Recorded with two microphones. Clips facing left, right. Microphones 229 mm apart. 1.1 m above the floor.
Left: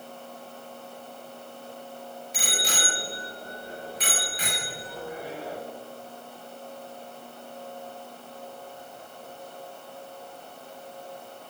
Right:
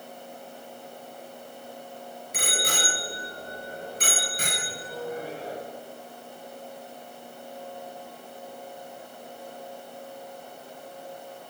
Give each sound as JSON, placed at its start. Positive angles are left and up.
{"t": 2.3, "sound": "a bicycle bell", "side_deg": -60, "distance_m": 3.5}